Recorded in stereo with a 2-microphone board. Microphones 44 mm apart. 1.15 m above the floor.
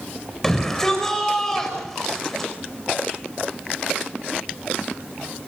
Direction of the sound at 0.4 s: 10° left (ahead or behind).